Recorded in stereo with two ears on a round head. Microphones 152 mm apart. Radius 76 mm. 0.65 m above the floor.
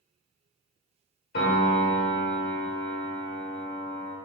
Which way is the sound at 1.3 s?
60° left (ahead or behind).